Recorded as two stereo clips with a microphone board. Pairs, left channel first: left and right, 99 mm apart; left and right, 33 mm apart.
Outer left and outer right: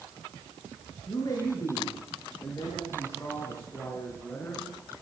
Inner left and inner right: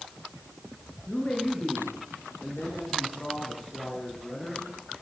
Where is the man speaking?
40° left (ahead or behind), 5.5 m; by 4.9 s 20° left (ahead or behind), 4.5 m.